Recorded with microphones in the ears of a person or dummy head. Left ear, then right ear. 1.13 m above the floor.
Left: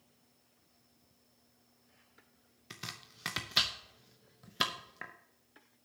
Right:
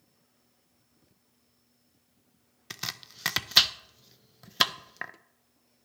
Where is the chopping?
30° right (ahead or behind), 0.6 m.